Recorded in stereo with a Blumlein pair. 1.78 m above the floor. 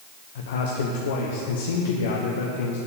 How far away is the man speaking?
About 1.1 m.